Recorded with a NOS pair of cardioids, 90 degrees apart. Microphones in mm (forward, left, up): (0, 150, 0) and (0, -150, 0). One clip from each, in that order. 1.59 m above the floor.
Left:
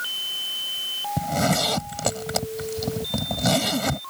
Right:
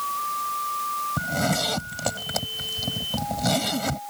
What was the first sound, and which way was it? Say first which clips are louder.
A zipper: left 5 dB; 20° left.